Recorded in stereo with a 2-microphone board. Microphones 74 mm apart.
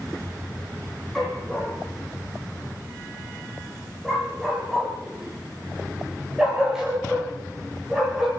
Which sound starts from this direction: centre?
A dog barking, at 1.1 s.